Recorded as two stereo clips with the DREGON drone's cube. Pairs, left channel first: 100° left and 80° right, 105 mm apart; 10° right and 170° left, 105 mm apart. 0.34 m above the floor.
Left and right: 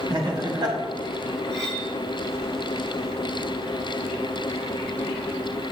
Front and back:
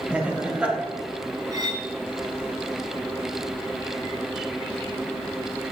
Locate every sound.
0.1 s laughter: 115° right, 1.8 m
1.5 s cutlery clinking: 140° right, 1.9 m